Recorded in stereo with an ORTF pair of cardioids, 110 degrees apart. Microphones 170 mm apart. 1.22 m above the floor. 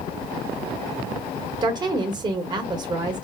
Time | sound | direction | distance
1.6 | a woman speaking | 25° right | 1.0 m